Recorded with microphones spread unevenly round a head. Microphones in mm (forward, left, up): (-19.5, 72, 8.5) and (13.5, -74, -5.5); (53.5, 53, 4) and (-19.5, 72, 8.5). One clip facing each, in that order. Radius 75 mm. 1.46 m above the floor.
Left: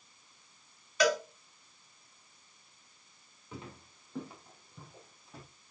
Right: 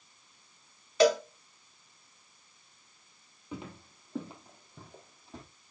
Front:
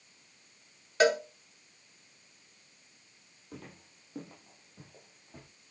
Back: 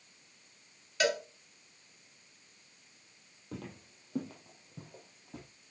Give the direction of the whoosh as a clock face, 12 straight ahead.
No whoosh in this recording.